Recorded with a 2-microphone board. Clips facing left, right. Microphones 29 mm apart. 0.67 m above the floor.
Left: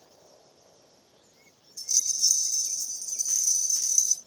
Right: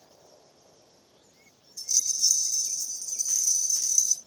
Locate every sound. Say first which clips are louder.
1.8 s a rattle: even; 5° right (ahead or behind), 0.8 m